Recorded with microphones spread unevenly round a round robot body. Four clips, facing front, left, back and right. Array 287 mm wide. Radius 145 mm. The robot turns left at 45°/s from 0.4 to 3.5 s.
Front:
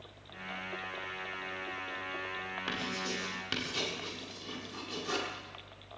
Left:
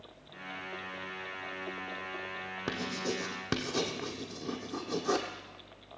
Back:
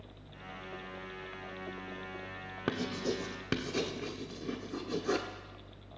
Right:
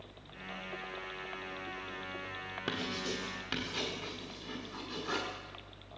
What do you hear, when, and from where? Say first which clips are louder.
2.7 s writing: left 3 dB, back 6 dB; 170° left, 1.0 m; by 5.3 s 130° left, 1.0 m